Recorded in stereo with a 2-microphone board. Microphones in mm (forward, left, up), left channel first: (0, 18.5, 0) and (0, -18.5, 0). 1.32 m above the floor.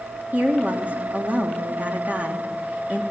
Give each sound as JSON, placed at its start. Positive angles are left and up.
{"t": 0.3, "sound": "a woman speaking", "side_deg": -50, "distance_m": 3.0}